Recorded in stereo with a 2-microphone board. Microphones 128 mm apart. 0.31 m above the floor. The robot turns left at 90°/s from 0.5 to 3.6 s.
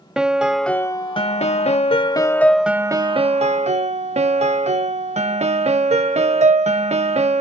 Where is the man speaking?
I don't hear a man speaking.